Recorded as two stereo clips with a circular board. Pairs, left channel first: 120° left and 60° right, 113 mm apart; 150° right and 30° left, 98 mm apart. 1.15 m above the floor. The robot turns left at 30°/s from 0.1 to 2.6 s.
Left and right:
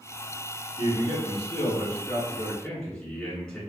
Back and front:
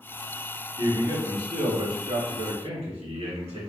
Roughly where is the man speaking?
Left.